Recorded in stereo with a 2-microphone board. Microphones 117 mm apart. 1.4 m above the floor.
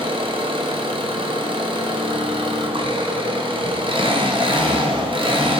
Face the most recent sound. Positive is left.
turn(degrees=-45)  # may be behind; listen again after turning